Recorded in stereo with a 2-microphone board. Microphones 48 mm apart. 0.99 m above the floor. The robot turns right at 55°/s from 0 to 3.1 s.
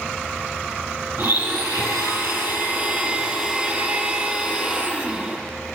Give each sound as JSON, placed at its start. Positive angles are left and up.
{"t": 1.2, "sound": "a blender", "azimuth_deg": -130, "distance_m": 7.5}